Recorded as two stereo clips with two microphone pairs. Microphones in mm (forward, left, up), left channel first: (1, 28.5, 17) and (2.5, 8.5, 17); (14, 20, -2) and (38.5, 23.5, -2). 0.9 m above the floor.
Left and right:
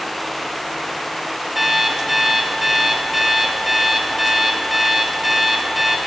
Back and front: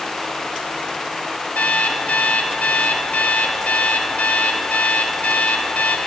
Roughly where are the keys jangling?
No keys jangling in this recording.